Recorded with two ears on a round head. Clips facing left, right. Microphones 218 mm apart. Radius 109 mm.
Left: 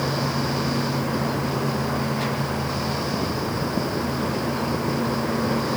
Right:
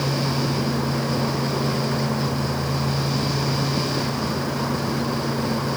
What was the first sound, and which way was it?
Only background noise.